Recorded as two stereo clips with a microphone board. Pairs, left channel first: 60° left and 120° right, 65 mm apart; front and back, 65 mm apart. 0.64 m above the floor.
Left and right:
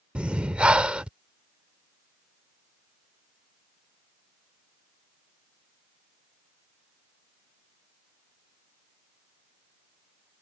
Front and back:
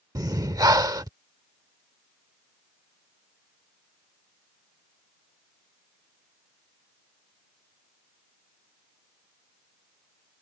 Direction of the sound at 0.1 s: 165° left.